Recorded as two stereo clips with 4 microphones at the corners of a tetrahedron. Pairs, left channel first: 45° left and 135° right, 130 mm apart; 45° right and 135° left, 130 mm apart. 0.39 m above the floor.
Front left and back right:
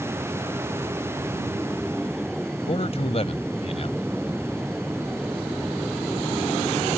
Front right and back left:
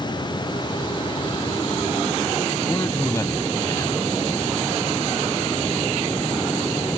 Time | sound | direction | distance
2.7 | a man speaking | 20° left | ?